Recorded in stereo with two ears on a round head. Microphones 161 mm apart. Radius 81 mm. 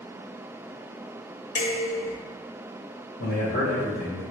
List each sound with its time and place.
1.6 s dishes clattering: 45° left (ahead or behind), 0.8 m
3.2 s a man speaking: 75° left (ahead or behind), 1.5 m